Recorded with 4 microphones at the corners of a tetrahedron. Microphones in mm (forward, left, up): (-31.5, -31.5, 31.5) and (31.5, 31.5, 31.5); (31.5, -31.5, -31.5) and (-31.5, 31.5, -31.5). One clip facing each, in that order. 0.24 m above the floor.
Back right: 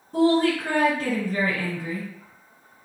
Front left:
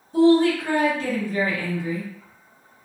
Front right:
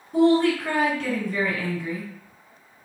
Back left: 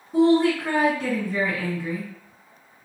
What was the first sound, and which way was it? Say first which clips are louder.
A woman speaking: front left 4 dB, even; 145° right.